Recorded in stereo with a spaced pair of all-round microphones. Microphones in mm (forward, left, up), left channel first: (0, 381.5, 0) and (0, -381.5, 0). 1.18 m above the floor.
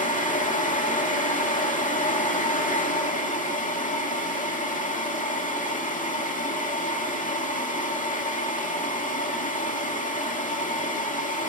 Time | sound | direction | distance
0.0 | a fan | 10° left (ahead or behind) | 2 m